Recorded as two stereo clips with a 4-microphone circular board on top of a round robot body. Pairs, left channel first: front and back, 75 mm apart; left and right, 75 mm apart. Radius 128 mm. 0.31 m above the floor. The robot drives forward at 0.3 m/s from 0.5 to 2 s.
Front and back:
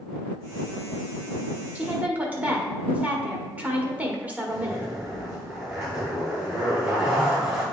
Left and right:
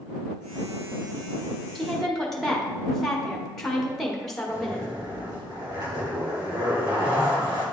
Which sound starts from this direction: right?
A zipper, at 4.5 s.